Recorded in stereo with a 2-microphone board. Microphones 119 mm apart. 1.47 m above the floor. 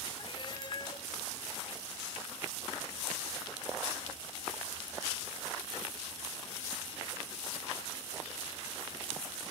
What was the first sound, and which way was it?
A cat meowing, 45° left (ahead or behind).